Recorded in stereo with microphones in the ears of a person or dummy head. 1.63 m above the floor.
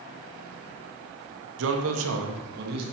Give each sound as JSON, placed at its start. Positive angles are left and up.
{"t": 1.6, "sound": "a man speaking", "side_deg": -70, "distance_m": 1.2}